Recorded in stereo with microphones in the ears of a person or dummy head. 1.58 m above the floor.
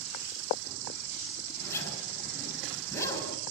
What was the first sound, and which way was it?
An insect, 35° right (ahead or behind).